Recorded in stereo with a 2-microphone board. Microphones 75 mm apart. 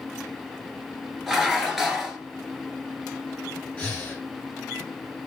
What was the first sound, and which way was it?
Dishes clattering, centre (ahead or behind).